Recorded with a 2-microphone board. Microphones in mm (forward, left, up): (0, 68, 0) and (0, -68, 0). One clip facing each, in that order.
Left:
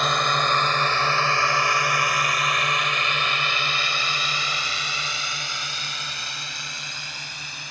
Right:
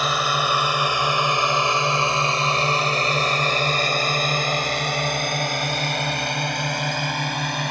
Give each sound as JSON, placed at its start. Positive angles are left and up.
{"t": 0.0, "sound": "a drone", "side_deg": -5}